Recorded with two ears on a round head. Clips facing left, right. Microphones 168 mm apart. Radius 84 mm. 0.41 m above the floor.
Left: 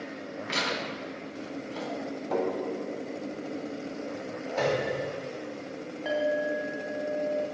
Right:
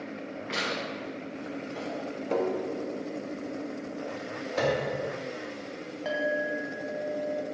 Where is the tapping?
30° right (ahead or behind), 1.4 m.